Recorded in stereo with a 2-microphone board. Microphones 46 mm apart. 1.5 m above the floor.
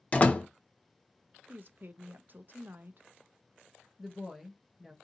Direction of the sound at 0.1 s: 30° left (ahead or behind).